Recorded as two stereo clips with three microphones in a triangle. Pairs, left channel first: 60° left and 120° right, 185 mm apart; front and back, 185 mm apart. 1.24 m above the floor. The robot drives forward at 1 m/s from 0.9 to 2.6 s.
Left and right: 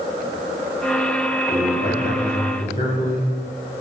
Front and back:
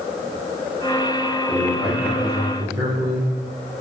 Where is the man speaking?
90° left, 3.5 m; by 3.3 s 110° left, 3.5 m.